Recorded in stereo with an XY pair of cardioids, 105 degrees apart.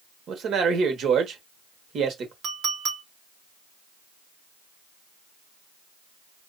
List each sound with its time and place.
0.3 s a man speaking: 65° right, 1.4 m
2.4 s a clink: 70° right, 1.6 m